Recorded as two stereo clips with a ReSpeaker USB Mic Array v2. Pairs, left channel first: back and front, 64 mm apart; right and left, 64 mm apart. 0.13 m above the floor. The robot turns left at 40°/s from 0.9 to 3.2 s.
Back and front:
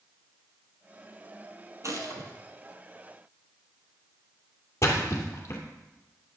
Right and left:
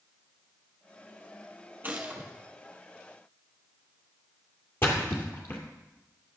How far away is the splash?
About 2.5 m.